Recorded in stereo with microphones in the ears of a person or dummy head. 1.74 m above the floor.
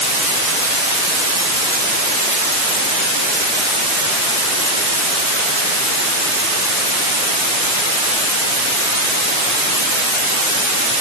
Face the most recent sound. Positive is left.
No sound to turn to.